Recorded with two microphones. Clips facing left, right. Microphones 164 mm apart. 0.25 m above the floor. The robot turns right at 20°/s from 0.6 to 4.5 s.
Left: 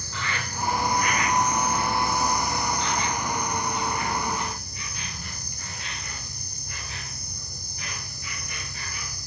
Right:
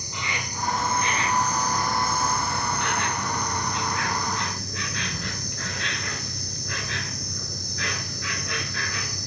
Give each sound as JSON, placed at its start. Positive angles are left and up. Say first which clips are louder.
{"t": 0.0, "sound": "an insect", "louder": "even", "azimuth_deg": -160, "distance_m": 1.0}